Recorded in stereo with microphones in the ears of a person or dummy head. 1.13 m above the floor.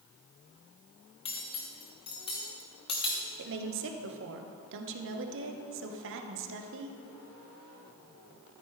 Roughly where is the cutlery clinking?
Left.